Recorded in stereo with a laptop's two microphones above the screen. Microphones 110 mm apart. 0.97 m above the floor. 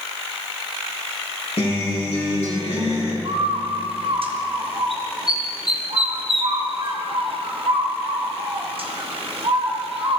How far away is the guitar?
About 2.5 m.